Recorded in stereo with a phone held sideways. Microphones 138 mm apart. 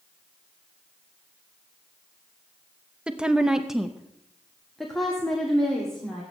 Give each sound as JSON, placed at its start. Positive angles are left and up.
{"t": 3.1, "sound": "a woman speaking", "side_deg": -5, "distance_m": 0.8}